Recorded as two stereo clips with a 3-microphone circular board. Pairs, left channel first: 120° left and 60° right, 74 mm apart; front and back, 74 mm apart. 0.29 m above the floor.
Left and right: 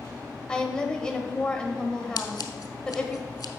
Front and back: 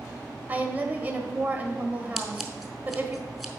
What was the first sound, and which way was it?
A woman speaking, straight behind.